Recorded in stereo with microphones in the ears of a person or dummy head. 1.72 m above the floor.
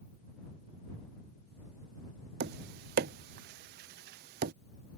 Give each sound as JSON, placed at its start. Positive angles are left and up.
{"t": 2.4, "sound": "tapping", "side_deg": -45}